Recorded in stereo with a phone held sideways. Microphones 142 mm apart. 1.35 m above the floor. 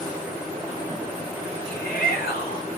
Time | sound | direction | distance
1.7 | a shout | 85° left | 5.5 m